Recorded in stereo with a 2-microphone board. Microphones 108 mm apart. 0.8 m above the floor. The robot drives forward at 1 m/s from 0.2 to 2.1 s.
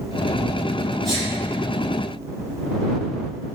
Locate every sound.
1.0 s a sneeze: centre (ahead or behind), 1.9 m